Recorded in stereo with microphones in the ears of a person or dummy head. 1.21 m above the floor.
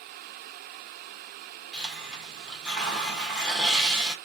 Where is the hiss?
Centre (ahead or behind), 1.1 m.